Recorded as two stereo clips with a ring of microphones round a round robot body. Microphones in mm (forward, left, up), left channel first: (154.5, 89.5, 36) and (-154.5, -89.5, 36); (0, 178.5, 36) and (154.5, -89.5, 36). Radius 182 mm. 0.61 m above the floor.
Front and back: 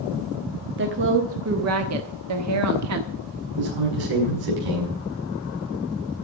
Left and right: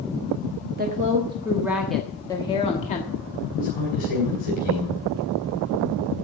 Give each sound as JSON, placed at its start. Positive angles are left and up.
{"t": 0.8, "sound": "a woman speaking", "azimuth_deg": -105, "distance_m": 1.2}
{"t": 3.5, "sound": "a man speaking", "azimuth_deg": -170, "distance_m": 6.0}